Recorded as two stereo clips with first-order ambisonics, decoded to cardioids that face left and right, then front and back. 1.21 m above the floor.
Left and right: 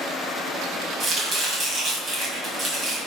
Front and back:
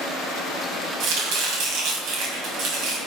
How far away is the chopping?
About 3 m.